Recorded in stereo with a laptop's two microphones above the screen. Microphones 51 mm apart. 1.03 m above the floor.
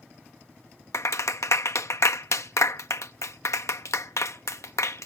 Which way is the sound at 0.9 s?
75° left (ahead or behind).